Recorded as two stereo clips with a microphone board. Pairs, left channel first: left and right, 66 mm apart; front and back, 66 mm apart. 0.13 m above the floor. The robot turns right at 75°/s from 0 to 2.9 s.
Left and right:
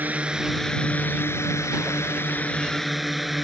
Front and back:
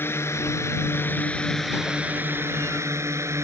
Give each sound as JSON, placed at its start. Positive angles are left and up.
{"t": 0.0, "sound": "a drone", "azimuth_deg": -40}